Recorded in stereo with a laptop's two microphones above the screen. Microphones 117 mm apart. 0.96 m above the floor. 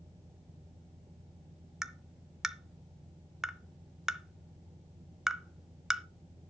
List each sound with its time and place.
0.0 s a fan: 50° right (ahead or behind), 6 m
1.8 s tapping: 5° right (ahead or behind), 0.7 m